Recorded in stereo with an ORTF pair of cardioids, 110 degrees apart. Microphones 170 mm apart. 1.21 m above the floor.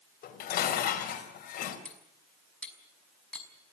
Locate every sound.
0.2 s dishes clattering: 60° left, 4 m
1.9 s cutlery clinking: 5° left, 5 m